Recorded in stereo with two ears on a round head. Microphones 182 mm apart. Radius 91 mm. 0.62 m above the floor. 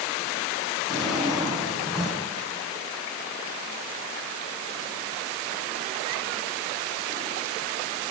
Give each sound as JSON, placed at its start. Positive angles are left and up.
{"t": 0.9, "sound": "a drawer", "side_deg": 0, "distance_m": 7.5}